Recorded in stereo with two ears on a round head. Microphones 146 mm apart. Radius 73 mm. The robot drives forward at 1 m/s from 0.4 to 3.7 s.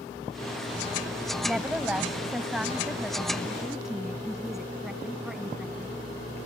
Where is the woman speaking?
5° right (ahead or behind); by 6.0 s centre (ahead or behind).